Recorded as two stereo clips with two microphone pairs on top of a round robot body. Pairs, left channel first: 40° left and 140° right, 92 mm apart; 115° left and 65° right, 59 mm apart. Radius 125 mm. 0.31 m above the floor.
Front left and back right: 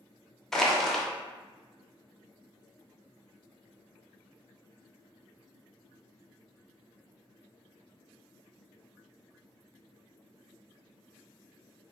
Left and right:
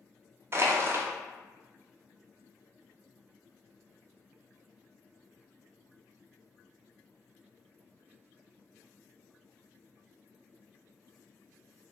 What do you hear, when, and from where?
0.5 s crushing: 30° right, 0.6 m